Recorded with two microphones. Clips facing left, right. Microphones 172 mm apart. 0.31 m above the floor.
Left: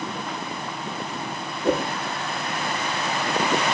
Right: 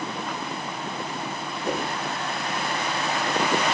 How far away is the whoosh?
About 4.5 m.